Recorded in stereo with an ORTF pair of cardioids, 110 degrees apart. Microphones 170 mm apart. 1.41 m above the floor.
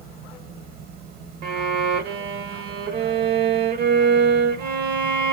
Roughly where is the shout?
No shout in this recording.